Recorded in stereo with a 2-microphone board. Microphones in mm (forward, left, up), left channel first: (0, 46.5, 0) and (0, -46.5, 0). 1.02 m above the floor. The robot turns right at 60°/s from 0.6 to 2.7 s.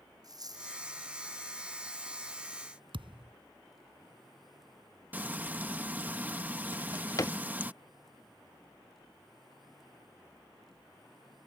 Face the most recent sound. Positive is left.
turn(degrees=35)  # may be behind; listen again after turning